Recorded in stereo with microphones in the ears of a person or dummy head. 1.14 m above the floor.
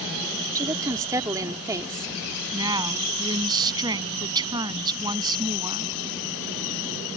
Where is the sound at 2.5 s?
20° right (ahead or behind).